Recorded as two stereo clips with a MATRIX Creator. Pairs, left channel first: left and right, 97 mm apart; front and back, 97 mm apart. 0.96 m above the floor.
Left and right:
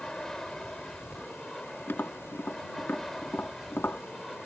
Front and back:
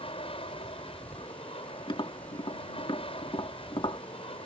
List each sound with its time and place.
0.0 s an aircraft: 5° left; by 4.5 s straight ahead
1.9 s tapping: 25° left